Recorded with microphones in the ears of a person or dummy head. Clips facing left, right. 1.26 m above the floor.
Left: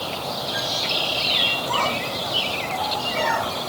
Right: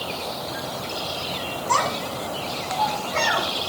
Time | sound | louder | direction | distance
1.7 | a child speaking | right 1 dB | 55° right (ahead or behind) | 9 m